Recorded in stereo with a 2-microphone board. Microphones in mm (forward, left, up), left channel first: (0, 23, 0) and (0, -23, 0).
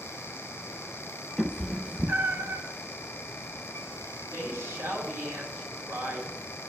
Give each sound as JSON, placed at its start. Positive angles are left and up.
{"t": 1.4, "sound": "a cat meowing", "side_deg": -10, "distance_m": 0.8}
{"t": 4.3, "sound": "a woman speaking", "side_deg": -65, "distance_m": 3.5}